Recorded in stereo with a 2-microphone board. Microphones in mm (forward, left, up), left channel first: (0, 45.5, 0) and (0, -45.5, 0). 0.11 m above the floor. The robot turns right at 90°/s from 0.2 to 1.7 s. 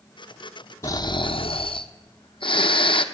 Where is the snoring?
30° left, 0.7 m; by 3.0 s 110° left, 0.7 m.